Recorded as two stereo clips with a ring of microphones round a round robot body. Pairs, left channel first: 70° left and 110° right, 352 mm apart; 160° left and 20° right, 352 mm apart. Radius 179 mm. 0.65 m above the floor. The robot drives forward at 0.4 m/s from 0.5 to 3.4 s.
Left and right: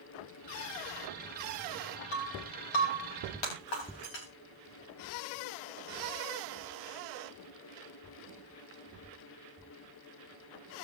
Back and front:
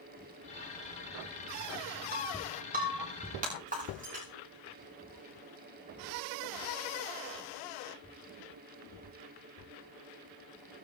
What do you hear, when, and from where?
2.1 s breaking glass: 45° left, 8.5 m; by 4.3 s 50° left, 8.5 m